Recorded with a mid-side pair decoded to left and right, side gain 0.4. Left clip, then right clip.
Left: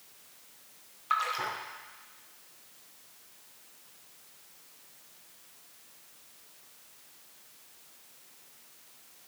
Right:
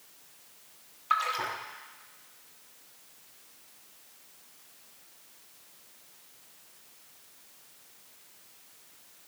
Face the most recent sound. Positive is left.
turn(degrees=-10)